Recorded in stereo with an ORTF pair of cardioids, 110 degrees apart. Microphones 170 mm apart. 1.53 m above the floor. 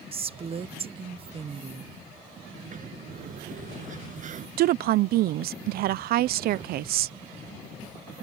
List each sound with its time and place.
0.1 s a woman speaking: 35° right
2.5 s a sliding door: 50° right
4.6 s a woman speaking: 65° right